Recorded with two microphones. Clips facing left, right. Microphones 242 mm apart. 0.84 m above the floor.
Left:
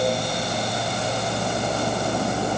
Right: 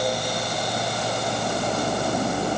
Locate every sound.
Only background noise.